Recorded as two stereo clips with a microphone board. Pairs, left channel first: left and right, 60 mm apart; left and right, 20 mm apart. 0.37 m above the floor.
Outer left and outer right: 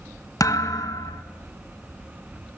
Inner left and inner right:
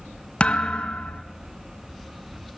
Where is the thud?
75° left (ahead or behind), 1.4 m.